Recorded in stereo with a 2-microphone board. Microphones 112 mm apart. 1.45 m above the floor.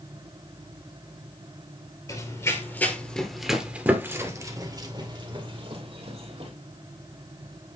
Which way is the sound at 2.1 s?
30° left (ahead or behind).